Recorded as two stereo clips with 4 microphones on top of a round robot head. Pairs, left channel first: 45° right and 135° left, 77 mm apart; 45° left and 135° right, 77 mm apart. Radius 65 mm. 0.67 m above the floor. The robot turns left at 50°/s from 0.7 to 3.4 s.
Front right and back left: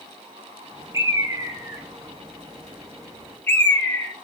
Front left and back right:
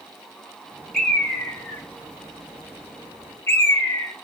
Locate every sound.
0.9 s a bird: 130° left, 0.8 m; by 4.1 s 5° left, 0.8 m